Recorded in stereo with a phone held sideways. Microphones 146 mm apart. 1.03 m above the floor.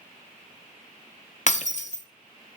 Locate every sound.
1.5 s breaking glass: 55° left (ahead or behind), 0.7 m